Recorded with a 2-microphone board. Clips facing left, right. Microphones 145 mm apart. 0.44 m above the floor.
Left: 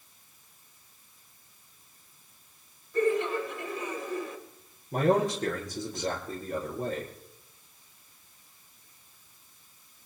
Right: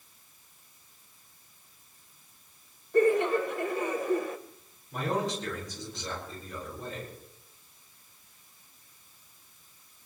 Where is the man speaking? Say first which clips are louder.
Left 6 dB; 50° left (ahead or behind), 7.5 m.